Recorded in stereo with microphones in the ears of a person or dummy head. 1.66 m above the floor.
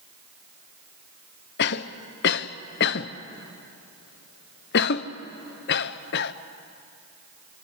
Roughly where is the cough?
Left.